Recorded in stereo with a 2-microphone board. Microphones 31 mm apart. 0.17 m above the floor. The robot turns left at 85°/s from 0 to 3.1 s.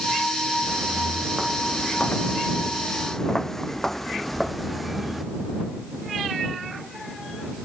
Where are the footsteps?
85° right; by 5.2 s centre (ahead or behind).